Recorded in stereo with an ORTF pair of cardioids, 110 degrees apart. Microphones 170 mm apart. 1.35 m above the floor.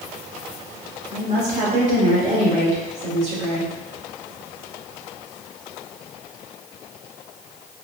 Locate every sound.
1.1 s a woman speaking: 40° right, 1.7 m